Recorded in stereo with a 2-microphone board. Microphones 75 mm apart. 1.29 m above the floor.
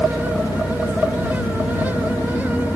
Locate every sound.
0.0 s an engine running: 45° left (ahead or behind)